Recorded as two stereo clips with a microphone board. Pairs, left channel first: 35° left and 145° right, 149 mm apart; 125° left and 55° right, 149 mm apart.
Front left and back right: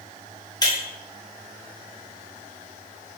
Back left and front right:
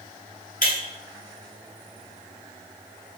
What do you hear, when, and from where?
0.6 s breaking glass: 100° left, 1.9 m